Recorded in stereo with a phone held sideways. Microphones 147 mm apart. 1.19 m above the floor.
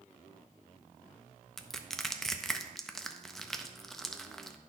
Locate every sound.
1.6 s crushing: 5° left (ahead or behind), 0.6 m